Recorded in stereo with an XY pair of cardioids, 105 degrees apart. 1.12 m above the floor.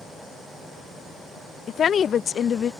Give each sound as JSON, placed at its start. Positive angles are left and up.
{"t": 1.7, "sound": "a woman speaking", "azimuth_deg": 50}